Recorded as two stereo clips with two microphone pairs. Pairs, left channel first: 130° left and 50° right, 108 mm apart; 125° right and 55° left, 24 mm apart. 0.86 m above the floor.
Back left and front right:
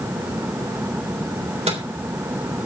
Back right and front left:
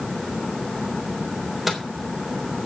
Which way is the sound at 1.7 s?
30° right.